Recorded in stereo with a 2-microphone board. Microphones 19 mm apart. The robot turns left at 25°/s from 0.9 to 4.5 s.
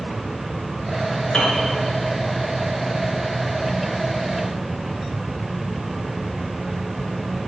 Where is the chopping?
No chopping in this recording.